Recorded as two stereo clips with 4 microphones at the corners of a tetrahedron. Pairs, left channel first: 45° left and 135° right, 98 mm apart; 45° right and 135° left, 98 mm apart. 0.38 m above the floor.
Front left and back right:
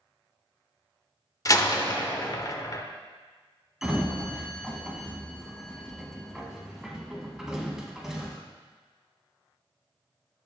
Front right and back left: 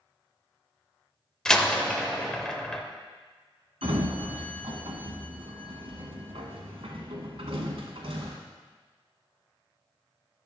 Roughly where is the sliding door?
Behind left.